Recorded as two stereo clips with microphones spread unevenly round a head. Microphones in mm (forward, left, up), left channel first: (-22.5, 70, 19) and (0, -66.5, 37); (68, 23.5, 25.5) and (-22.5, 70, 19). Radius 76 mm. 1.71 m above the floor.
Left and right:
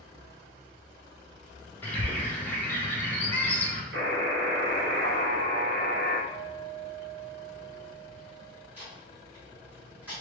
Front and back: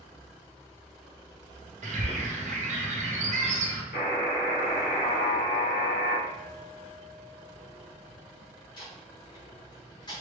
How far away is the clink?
About 0.7 m.